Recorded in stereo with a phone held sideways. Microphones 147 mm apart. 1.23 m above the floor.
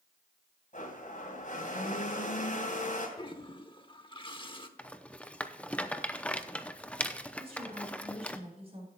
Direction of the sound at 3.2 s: 35° left (ahead or behind).